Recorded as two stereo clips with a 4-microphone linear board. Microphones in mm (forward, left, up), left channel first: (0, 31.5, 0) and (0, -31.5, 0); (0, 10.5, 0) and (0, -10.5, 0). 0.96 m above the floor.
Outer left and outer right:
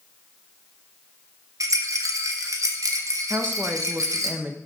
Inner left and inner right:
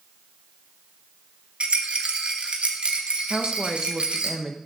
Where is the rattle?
60° right (ahead or behind), 1.3 m.